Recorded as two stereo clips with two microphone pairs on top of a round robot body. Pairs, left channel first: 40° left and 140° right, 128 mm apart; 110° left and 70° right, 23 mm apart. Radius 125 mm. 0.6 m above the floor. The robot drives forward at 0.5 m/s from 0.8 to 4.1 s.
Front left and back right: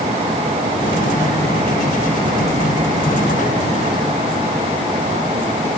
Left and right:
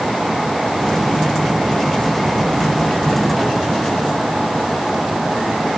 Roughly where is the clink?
I don't hear a clink.